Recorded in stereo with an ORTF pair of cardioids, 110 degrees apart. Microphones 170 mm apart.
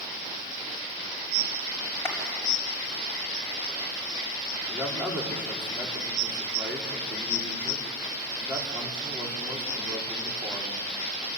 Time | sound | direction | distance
2.0 | a clap | 15° left | 6 m
4.7 | a man speaking | 10° right | 4.5 m